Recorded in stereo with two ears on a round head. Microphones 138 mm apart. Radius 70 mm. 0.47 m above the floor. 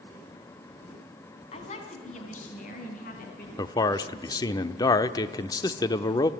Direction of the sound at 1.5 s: 40° left (ahead or behind).